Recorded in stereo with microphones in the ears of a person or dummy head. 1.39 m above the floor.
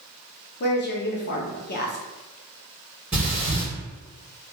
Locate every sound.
0.6 s a woman speaking: 50° left (ahead or behind), 0.7 m
3.1 s breathing: 10° right (ahead or behind), 1.4 m